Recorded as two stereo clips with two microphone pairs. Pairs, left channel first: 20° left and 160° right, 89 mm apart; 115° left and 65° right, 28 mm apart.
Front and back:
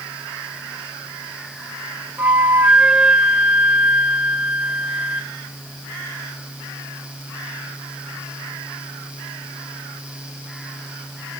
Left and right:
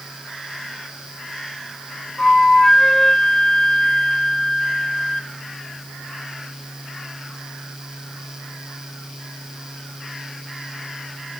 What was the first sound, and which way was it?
A flute, 165° left.